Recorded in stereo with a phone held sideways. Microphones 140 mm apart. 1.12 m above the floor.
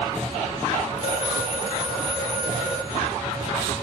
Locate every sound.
1.0 s a phone ringing: 75° right (ahead or behind), 1.4 m